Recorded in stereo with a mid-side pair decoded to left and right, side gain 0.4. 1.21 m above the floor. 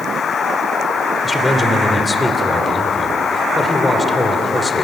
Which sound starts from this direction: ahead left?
A man speaking, at 1.2 s.